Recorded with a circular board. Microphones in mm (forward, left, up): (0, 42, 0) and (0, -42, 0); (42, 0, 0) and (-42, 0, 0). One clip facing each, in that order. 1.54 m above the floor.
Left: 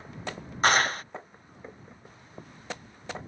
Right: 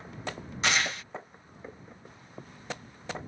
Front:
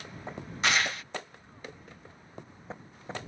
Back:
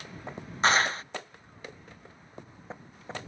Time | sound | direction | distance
0.6 | a clap | 130° left | ?